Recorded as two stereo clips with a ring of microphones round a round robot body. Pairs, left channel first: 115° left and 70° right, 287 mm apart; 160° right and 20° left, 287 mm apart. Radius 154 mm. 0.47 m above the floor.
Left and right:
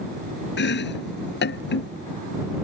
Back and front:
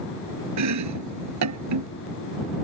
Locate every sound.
0.6 s chopping: 55° left